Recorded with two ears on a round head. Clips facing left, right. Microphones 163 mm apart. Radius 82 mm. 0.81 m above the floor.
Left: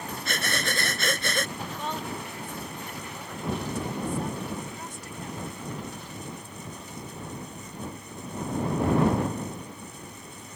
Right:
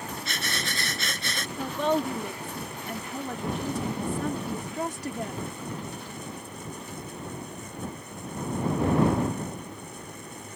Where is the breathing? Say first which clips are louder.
Left 7 dB; 45° left (ahead or behind).